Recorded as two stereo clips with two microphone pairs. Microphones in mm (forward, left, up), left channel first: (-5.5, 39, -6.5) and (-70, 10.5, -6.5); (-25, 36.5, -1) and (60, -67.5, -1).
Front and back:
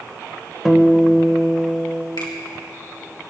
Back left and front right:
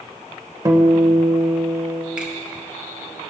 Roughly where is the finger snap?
Ahead left.